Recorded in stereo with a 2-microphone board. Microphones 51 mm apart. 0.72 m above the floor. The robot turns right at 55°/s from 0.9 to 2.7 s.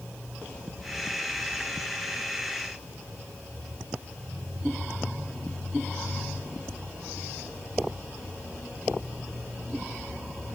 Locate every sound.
Only background noise.